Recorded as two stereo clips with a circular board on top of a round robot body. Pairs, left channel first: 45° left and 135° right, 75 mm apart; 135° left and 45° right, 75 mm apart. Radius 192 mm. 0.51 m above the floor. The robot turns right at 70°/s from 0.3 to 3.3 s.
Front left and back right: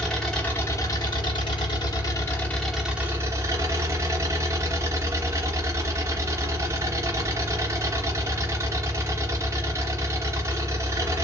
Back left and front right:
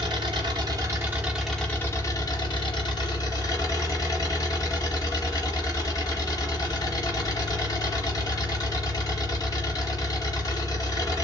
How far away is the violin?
I don't hear a violin.